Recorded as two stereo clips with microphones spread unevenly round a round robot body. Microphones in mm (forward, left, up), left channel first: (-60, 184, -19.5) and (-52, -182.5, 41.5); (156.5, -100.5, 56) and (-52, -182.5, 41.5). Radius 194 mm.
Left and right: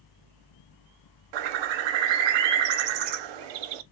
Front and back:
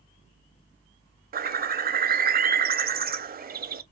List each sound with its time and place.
1.3 s a bird: 100° right, 0.6 m